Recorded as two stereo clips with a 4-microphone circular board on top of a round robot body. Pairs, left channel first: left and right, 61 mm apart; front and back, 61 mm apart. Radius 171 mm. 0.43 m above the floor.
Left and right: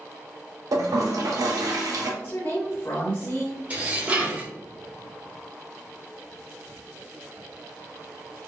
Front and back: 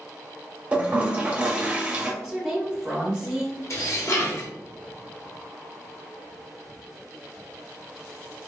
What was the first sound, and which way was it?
A toilet flushing, 110° right.